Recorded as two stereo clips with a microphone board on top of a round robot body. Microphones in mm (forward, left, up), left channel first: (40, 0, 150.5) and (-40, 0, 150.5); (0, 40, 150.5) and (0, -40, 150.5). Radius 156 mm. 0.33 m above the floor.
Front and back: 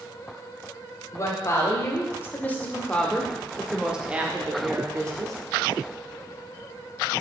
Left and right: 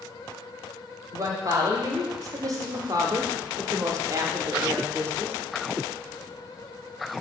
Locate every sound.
1.1 s a woman speaking: 45° right, 3 m; by 5.4 s 150° right, 2 m